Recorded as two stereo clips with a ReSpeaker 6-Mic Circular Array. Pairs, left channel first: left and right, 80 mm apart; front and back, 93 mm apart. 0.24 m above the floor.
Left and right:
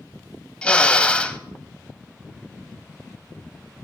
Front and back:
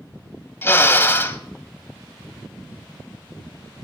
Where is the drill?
30° left, 0.7 m.